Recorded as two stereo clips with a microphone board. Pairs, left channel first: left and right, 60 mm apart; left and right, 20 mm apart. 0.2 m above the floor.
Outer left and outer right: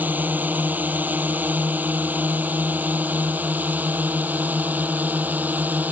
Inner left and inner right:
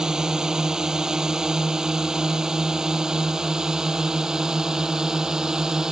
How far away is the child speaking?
I don't hear a child speaking.